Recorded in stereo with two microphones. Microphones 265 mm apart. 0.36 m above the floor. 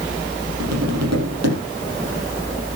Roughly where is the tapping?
Right.